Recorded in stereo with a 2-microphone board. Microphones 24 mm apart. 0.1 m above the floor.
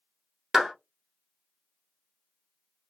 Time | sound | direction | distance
0.5 | a clap | 15° right (ahead or behind) | 1.3 m